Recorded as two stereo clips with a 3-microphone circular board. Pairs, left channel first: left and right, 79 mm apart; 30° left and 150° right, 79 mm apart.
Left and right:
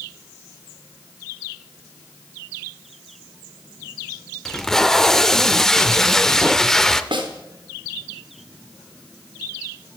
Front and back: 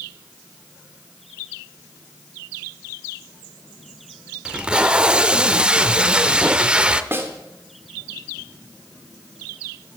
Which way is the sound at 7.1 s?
85° right.